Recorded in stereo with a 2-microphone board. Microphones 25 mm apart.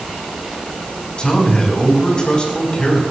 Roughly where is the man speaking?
Left.